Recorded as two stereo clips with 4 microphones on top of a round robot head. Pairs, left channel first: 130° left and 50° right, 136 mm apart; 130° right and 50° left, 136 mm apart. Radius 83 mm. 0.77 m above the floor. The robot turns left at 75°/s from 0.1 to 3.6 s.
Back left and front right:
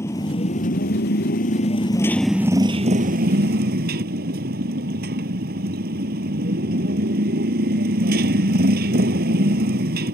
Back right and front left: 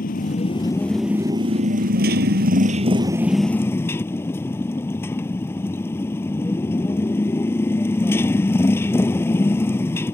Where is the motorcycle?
155° right; by 10.1 s 60° right.